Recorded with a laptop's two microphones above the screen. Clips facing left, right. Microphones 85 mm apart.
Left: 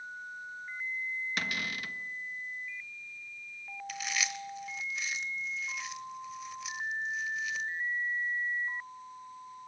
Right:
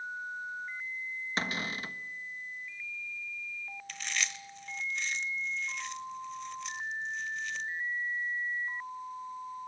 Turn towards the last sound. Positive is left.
turn(degrees=5)  # may be behind; listen again after turning